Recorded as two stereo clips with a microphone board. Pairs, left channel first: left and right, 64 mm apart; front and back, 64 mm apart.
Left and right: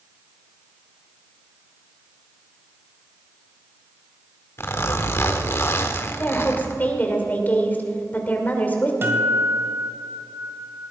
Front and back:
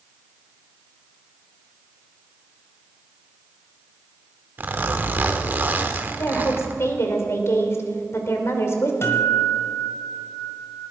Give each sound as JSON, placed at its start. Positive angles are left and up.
{"t": 4.6, "sound": "a zipper", "azimuth_deg": 125, "distance_m": 1.2}
{"t": 6.2, "sound": "a woman speaking", "azimuth_deg": 35, "distance_m": 2.5}
{"t": 9.0, "sound": "a guitar", "azimuth_deg": -40, "distance_m": 1.9}